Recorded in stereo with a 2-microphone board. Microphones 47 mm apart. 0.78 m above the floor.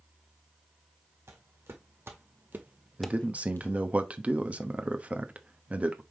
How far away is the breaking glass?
No breaking glass in this recording.